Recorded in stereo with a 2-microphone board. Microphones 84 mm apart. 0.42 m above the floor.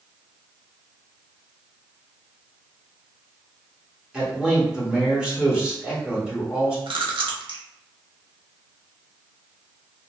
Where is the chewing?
75° right (ahead or behind), 0.6 m.